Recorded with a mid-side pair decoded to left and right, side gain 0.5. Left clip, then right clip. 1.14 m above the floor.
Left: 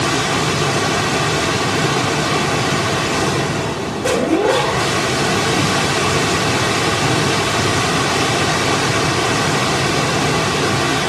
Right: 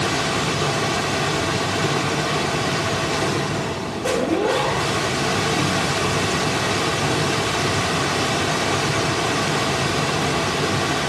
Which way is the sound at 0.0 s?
35° left.